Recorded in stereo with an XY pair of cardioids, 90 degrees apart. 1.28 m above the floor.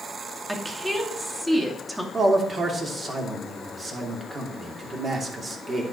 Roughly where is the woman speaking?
Ahead.